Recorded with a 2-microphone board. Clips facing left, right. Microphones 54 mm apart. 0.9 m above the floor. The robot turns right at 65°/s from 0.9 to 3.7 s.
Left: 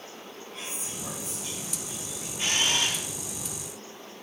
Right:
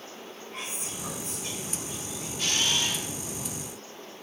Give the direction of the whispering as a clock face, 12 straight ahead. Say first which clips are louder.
Right 2 dB; 4 o'clock.